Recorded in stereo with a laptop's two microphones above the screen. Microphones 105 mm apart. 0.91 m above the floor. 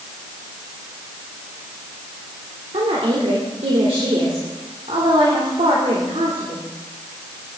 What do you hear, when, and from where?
2.7 s a woman speaking: 75° right (ahead or behind), 3 m